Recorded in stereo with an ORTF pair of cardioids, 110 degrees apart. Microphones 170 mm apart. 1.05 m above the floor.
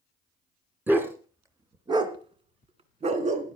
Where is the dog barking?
10° right, 2.5 m; by 3.6 s 50° right, 2.5 m.